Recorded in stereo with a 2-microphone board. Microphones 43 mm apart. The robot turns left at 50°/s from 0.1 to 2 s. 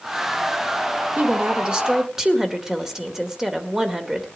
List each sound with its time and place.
1.2 s a woman speaking: 125° right, 1.9 m; by 4.3 s 165° right, 1.9 m